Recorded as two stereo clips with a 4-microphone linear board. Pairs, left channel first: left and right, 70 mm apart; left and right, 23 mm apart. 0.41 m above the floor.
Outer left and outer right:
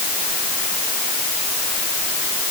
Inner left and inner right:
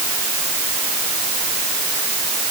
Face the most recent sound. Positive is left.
No sound to turn to.